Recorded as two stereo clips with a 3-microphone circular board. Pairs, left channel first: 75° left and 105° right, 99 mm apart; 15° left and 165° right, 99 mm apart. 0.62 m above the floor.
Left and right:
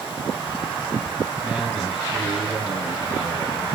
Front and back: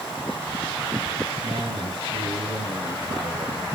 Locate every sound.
1.4 s a man speaking: 165° left, 4.5 m; by 3.7 s 160° left, 7 m